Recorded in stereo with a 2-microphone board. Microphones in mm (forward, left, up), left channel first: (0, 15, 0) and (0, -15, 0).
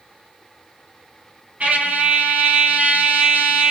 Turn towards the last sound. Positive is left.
turn(degrees=-60)  # may be behind; listen again after turning